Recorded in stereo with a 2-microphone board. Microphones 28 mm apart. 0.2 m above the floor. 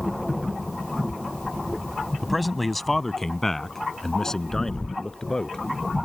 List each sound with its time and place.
2.2 s a man speaking: 5° right (ahead or behind); by 5.6 s 20° left (ahead or behind)